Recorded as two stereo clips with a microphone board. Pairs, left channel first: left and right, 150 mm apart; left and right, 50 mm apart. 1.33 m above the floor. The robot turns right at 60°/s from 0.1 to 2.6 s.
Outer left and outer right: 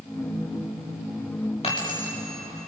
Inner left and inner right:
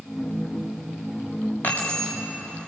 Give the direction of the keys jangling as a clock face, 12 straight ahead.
7 o'clock.